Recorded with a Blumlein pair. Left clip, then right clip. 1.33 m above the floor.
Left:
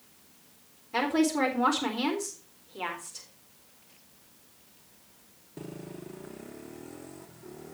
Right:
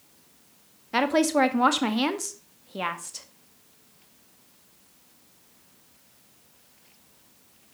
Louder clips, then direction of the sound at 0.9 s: Right 5 dB; 30° right.